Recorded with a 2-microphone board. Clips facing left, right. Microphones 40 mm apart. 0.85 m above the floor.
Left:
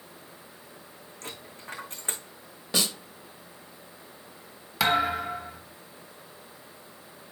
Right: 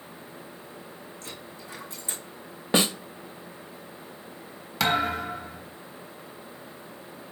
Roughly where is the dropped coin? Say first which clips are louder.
Left 4 dB; left.